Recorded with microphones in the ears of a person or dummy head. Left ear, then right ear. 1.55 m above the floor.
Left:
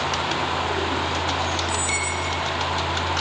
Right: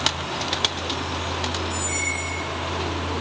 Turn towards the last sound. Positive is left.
turn(degrees=50)  # may be behind; listen again after turning